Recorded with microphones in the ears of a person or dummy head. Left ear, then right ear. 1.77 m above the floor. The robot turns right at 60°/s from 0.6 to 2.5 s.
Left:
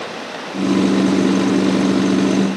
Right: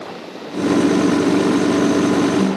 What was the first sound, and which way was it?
Only background noise.